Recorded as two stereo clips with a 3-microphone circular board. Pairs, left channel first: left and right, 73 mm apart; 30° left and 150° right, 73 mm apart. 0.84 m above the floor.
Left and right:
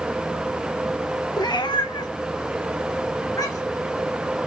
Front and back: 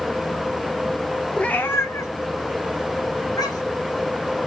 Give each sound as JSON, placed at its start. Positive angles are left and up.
{"t": 1.4, "sound": "a cat meowing", "azimuth_deg": 105, "distance_m": 0.8}